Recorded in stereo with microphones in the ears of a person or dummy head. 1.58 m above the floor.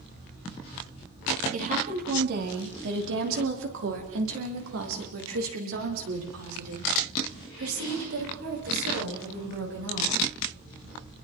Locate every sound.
1.5 s a woman speaking: 45° right (ahead or behind), 4 m; by 10.2 s 70° right (ahead or behind), 9.5 m